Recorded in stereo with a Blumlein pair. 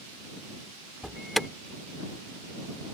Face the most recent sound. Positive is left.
turn(degrees=0)